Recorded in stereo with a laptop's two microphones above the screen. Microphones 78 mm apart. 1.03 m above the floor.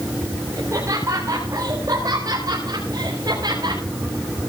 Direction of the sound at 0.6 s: 40° right (ahead or behind).